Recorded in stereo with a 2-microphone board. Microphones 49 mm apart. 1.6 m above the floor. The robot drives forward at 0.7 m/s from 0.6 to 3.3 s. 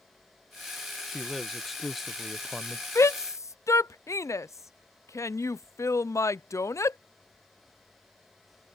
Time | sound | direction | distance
1.1 | a man speaking | centre (ahead or behind) | ?
3.0 | a shout | 65° left (ahead or behind) | ?